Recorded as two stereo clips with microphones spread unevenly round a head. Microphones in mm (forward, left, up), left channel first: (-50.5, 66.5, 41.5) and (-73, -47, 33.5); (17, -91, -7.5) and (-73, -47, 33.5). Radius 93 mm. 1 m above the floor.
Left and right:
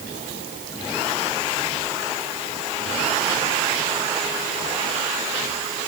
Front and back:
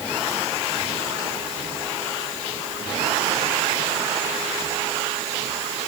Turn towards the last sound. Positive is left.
No sound to turn to.